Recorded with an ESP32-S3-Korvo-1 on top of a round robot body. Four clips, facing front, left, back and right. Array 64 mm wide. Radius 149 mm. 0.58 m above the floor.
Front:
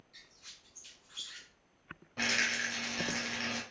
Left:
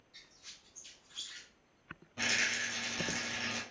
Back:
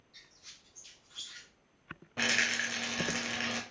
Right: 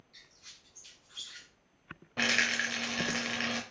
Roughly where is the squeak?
Ahead.